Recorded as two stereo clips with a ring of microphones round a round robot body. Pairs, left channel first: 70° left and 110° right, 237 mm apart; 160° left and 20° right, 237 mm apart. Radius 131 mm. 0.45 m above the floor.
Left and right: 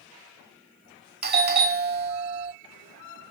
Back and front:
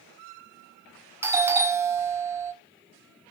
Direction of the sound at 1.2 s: 95° right.